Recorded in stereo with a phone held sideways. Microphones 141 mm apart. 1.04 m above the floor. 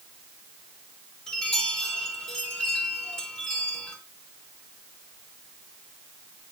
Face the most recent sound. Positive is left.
turn(degrees=5)  # may be behind; listen again after turning